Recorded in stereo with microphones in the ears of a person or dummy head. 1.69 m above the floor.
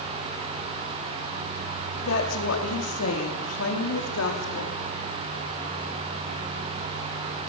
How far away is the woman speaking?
About 4.5 m.